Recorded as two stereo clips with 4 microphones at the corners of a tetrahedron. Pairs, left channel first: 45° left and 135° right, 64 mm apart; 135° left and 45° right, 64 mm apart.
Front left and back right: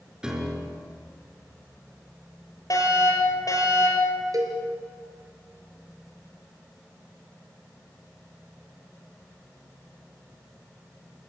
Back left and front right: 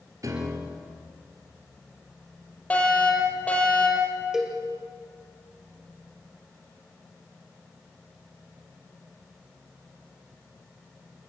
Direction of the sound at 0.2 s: 55° right.